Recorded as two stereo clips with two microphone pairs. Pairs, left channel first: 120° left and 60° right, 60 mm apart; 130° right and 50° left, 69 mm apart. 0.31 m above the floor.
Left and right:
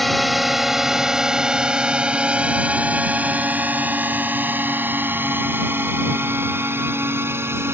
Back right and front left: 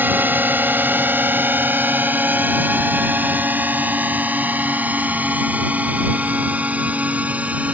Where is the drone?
30° left; by 7.8 s 20° right.